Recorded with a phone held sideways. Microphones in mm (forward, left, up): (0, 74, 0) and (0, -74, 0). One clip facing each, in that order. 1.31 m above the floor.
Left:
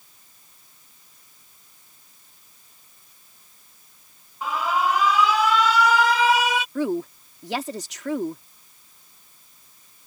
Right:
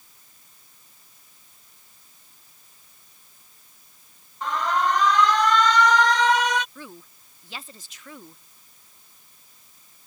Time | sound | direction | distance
4.4 | an alarm | 5° left (ahead or behind) | ?
6.8 | a woman speaking | 80° left | ?